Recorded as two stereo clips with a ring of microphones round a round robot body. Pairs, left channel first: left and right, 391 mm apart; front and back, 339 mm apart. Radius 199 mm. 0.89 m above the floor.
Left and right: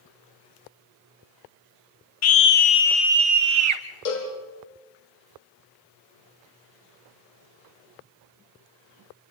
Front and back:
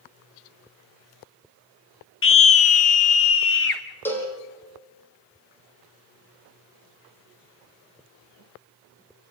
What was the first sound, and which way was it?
A scream, 45° left.